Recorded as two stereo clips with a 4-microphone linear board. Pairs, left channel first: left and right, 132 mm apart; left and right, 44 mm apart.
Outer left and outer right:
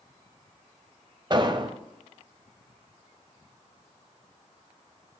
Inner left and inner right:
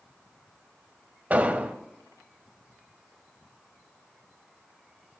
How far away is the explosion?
About 0.8 m.